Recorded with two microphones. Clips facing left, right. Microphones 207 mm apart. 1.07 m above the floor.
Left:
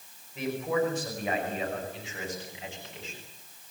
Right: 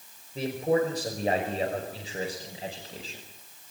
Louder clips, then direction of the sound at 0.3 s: Right 3 dB; 35° right (ahead or behind).